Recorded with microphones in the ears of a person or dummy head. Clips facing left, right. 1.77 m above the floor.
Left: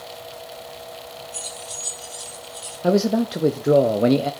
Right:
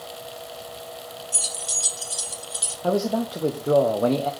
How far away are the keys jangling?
About 4 m.